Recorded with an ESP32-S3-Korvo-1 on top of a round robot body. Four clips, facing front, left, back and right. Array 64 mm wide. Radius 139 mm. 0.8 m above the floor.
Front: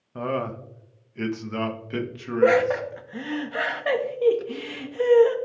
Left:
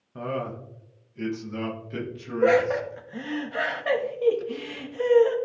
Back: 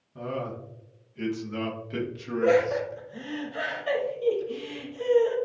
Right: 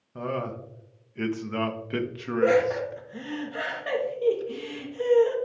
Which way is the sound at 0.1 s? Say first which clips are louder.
Even, front 5 dB; straight ahead.